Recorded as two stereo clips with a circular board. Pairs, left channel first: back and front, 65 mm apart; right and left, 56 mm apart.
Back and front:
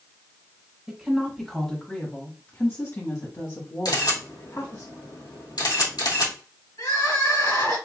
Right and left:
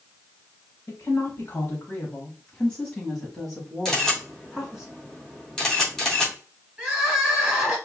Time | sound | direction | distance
0.9 | a woman speaking | 80° right | 1.5 m
3.9 | a camera shutter | 170° right | 3 m
6.8 | crying | 170° left | 3 m